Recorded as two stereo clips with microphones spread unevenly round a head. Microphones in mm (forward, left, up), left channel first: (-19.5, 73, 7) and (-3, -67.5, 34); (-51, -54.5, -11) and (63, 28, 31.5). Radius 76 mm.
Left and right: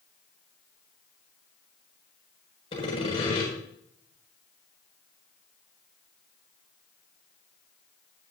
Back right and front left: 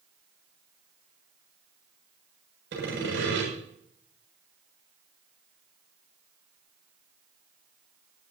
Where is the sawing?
45° left, 7 m.